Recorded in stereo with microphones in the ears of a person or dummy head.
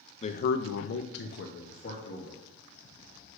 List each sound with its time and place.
0.2 s a man speaking: 30° left (ahead or behind), 0.6 m; by 2.4 s 40° left (ahead or behind), 1.7 m